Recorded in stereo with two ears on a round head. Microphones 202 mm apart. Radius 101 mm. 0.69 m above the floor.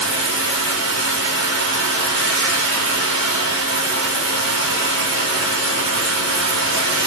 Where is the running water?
60° right (ahead or behind), 1.2 m.